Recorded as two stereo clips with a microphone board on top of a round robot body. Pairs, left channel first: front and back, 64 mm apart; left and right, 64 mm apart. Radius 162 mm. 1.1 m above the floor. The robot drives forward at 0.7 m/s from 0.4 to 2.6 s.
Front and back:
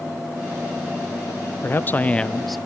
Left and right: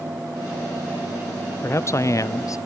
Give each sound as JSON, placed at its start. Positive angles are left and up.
{"t": 1.6, "sound": "a man speaking", "azimuth_deg": 50}